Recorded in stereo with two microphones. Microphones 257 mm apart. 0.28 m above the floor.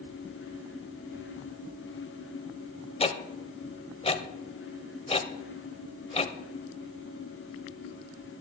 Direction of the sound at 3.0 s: 25° left (ahead or behind).